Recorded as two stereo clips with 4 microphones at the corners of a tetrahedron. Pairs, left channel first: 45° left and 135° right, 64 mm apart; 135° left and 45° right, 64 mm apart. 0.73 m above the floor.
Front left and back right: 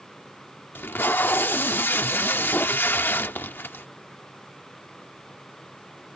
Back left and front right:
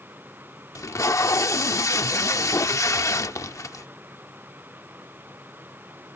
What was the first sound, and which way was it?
Tape being pulled, 105° left.